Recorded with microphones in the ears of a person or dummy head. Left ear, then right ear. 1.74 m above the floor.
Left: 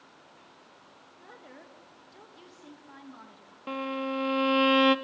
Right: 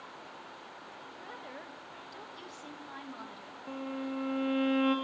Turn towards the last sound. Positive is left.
turn(degrees=50)  # may be behind; listen again after turning